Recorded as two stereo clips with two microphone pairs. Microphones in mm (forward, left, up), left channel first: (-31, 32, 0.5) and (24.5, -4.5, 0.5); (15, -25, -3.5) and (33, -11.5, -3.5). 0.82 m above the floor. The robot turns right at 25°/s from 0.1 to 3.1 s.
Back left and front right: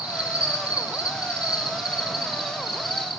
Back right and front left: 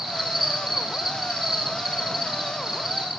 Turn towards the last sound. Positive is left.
turn(degrees=60)